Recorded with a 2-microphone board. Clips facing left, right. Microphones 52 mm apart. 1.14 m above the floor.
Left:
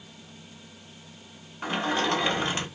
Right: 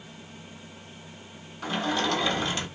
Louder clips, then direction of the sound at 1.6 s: Left 1 dB; 30° left (ahead or behind).